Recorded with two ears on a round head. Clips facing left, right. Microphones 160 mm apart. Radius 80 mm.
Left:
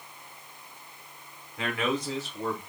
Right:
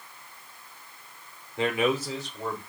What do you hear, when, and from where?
1.6 s a man speaking: 25° right (ahead or behind), 0.8 m; by 2.6 s 10° left (ahead or behind), 1.4 m